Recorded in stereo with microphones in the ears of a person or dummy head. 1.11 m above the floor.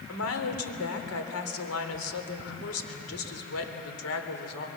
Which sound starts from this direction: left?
A woman speaking, at 0.1 s.